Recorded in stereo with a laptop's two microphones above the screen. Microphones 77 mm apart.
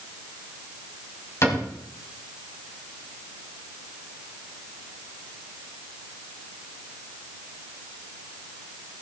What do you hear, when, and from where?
1.4 s a cupboard door: 40° left (ahead or behind), 3.5 m